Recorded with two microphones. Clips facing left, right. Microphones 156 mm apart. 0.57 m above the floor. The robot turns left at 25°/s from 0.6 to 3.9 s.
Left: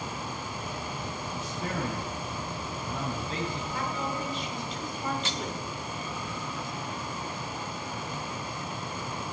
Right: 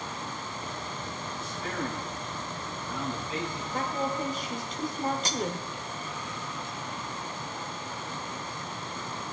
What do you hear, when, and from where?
1.4 s a man speaking: 85° left, 6.5 m; by 3.6 s 30° left, 6.5 m
3.7 s a woman speaking: 45° right (ahead or behind), 1.8 m; by 5.7 s 40° right (ahead or behind), 1.8 m
5.2 s cutlery clinking: 40° right (ahead or behind), 0.5 m